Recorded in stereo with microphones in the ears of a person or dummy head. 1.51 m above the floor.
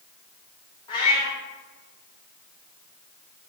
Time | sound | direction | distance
0.9 | a cat meowing | 20° left (ahead or behind) | 1.6 m